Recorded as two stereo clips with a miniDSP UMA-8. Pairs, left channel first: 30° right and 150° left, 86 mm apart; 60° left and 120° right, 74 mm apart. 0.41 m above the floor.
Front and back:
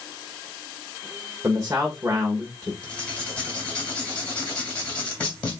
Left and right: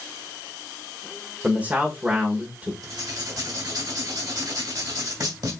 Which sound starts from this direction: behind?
A man speaking, at 1.4 s.